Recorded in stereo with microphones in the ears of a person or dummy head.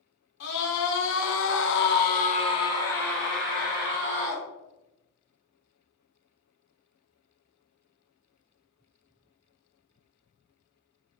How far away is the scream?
About 1.2 m.